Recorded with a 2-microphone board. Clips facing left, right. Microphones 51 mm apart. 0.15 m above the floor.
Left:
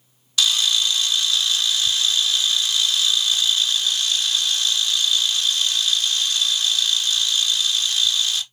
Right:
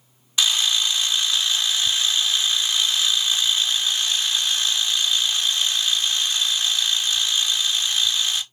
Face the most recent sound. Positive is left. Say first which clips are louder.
# left 1 dB
turn(degrees=-25)  # may be behind; listen again after turning